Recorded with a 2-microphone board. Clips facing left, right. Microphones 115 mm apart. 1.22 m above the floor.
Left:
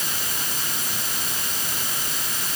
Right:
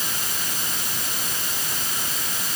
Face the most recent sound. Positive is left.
No sound to turn to.